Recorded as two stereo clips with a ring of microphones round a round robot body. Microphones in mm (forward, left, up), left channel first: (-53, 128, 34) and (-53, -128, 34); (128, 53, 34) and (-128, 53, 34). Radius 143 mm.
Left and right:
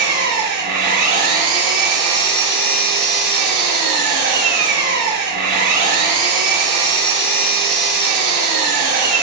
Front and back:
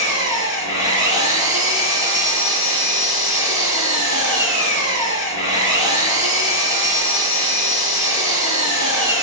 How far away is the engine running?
About 8.5 m.